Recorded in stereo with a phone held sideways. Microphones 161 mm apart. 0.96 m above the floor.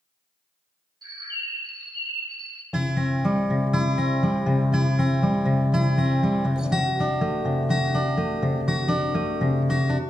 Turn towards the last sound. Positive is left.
turn(degrees=-5)  # may be behind; listen again after turning